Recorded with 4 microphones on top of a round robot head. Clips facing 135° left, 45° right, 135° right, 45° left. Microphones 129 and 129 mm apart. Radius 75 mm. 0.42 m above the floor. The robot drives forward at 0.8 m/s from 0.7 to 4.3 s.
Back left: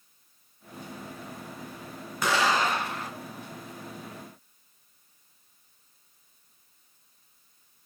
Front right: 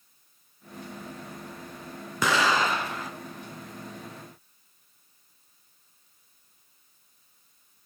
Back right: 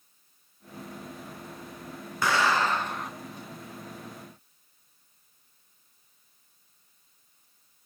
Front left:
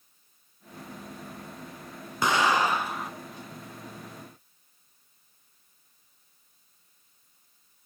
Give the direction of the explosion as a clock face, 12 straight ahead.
1 o'clock.